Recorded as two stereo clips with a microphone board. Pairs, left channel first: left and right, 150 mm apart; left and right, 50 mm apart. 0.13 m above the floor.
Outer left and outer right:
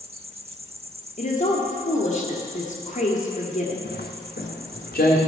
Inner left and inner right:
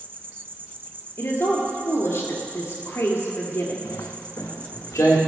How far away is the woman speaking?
About 1.9 m.